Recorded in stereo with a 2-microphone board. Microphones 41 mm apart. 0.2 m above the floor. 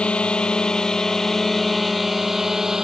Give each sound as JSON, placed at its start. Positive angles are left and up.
{"t": 0.0, "sound": "a drone", "side_deg": 25}